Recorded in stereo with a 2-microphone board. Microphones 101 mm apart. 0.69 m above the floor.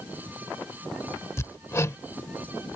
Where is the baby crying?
I don't hear a baby crying.